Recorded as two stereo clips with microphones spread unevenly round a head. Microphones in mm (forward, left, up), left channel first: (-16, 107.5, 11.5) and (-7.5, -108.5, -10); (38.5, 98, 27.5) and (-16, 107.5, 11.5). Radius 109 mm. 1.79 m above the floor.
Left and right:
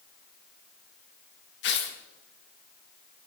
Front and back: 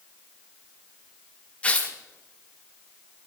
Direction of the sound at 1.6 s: 55° left.